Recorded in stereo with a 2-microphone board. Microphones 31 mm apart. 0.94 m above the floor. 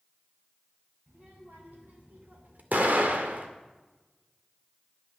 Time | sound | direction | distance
1.1 | a child speaking | 70° right (ahead or behind) | 4 m
2.7 | an explosion | 70° right (ahead or behind) | 1.4 m